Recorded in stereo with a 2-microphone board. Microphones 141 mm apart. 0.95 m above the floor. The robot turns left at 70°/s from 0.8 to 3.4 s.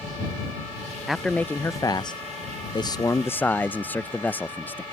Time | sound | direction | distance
1.1 | a man speaking | 175° right | ?